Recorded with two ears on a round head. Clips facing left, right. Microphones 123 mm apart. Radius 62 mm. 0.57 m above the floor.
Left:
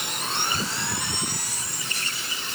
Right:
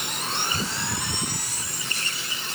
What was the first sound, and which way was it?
Only background noise.